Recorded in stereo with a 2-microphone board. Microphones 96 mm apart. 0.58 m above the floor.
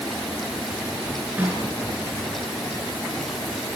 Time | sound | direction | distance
1.4 | a snare drum | 20° right (ahead or behind) | 7 m